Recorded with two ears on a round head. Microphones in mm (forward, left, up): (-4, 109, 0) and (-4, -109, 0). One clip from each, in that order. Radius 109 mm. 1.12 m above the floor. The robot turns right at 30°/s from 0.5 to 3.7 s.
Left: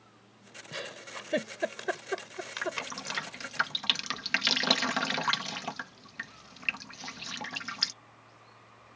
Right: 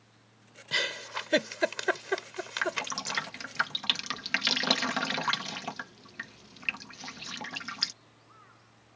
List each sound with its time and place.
0.7 s a giggle: 70° right (ahead or behind); by 3.3 s 5° left (ahead or behind)
2.6 s dripping: 30° right (ahead or behind); by 7.9 s 5° left (ahead or behind)